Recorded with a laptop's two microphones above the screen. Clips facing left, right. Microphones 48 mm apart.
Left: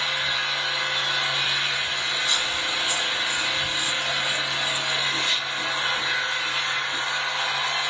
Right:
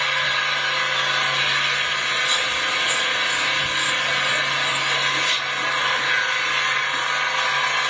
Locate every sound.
0.0 s an engine running: 80° right, 1.0 m
2.2 s chewing: 30° right (ahead or behind), 2.5 m